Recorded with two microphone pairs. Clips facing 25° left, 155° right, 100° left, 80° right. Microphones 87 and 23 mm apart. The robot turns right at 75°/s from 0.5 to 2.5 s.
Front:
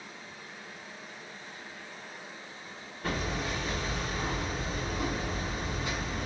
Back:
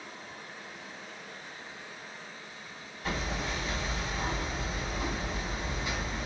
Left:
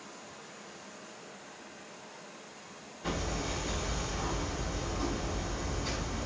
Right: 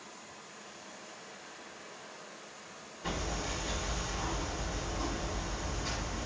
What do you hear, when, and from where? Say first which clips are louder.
0.0 s running water: back 1 dB, left 2 dB; straight behind, 0.7 m; by 6.3 s 30° right, 0.7 m
3.0 s hammering: front 1 dB, left 1 dB; straight ahead, 1.6 m